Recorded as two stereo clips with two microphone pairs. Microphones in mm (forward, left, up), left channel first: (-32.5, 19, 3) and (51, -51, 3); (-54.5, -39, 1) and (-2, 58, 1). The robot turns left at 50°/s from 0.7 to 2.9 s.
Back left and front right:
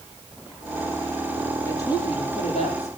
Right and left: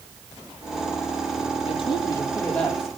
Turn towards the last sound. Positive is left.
turn(degrees=145)